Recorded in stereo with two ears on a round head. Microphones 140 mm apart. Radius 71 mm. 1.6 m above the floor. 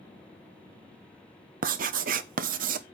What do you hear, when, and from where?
1.6 s writing: 55° right (ahead or behind), 0.7 m